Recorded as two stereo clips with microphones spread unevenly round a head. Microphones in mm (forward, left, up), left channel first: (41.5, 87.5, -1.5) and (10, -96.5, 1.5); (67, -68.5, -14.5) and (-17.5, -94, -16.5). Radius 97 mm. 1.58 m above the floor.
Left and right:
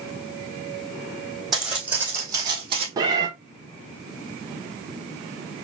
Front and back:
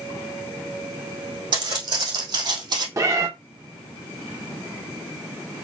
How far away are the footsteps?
About 3 m.